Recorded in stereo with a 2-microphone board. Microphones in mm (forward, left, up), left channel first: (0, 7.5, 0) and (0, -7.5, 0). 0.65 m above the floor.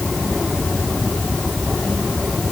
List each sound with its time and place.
Only background noise.